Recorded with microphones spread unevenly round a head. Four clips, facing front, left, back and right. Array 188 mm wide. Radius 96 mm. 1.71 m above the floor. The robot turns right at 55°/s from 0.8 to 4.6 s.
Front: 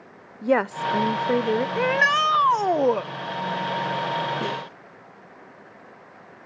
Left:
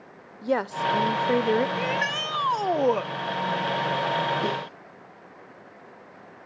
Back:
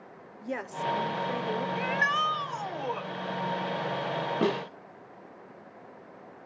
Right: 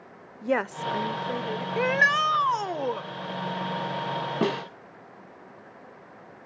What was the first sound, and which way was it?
A woman speaking, 5° left.